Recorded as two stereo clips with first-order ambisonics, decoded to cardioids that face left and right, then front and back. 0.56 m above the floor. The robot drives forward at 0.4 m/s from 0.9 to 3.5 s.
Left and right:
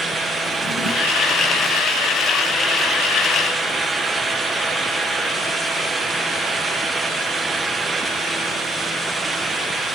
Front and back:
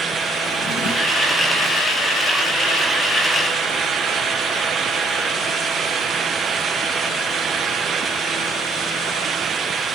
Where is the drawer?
45° left, 0.9 m; by 1.3 s 50° left, 0.8 m.